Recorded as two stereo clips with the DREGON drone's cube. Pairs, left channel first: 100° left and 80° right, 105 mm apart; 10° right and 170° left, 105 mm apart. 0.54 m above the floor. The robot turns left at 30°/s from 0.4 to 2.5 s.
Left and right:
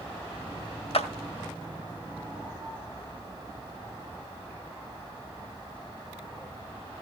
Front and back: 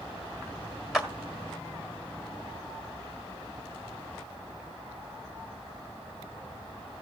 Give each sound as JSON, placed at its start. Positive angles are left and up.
{"t": 0.9, "sound": "a clap", "azimuth_deg": 85, "distance_m": 1.6}